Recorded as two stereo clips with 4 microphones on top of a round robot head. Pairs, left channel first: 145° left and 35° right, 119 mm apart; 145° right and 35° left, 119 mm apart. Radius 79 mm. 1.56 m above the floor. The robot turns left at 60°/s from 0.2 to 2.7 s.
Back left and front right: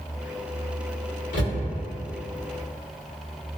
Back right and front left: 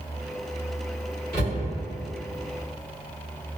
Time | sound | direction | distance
1.3 | a cupboard door | 135° left | 1.8 m